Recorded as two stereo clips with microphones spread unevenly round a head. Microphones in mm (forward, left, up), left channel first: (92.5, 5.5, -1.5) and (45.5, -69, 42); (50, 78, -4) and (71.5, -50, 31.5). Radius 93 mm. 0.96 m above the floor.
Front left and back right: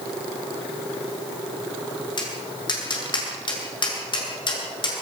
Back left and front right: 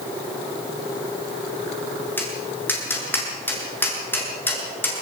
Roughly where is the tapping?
Ahead left.